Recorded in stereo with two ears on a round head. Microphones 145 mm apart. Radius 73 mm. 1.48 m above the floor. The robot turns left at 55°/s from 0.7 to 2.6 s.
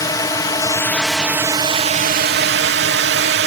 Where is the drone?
20° left; by 3.5 s 80° right.